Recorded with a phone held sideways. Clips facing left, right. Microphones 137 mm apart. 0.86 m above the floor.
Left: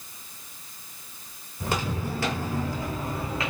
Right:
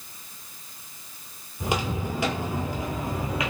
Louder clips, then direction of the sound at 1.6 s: Right 1 dB; 15° right (ahead or behind).